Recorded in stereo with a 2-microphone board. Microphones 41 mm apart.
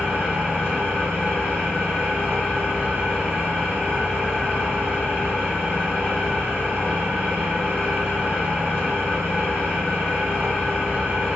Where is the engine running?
70° right (ahead or behind), 1.6 m.